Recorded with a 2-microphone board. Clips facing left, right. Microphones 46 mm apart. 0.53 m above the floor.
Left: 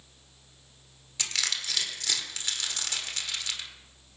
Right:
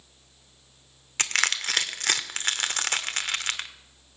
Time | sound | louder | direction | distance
1.2 | crushing | right 7 dB | 50° right (ahead or behind) | 1.0 m